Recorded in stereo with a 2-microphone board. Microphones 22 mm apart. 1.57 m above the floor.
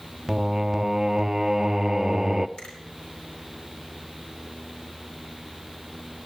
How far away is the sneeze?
I don't hear a sneeze.